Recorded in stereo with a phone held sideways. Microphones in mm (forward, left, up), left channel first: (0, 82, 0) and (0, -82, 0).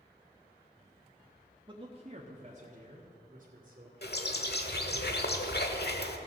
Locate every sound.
1.7 s a man speaking: 30° right (ahead or behind), 1.0 m; by 3.9 s 55° right (ahead or behind), 2 m
4.0 s a bird: 70° left (ahead or behind), 1.1 m